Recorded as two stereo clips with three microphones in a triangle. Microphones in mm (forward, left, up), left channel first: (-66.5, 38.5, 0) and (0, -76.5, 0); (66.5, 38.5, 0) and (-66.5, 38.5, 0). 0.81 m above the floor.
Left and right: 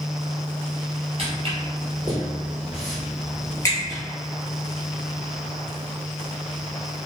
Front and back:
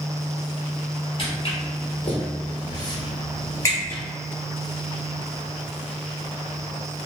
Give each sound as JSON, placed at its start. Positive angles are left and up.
{"t": 1.2, "sound": "footsteps", "azimuth_deg": -35, "distance_m": 1.2}